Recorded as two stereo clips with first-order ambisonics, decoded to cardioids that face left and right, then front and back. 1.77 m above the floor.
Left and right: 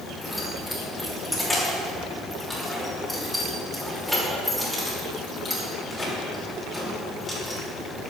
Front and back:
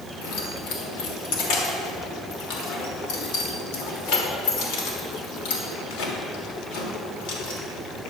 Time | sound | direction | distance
0.2 | keys jangling | 5° left | 3 m